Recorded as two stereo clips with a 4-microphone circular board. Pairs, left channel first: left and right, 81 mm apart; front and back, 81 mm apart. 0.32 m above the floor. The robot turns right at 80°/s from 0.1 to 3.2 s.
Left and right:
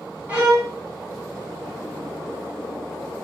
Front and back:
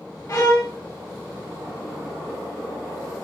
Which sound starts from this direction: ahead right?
A violin, at 0.3 s.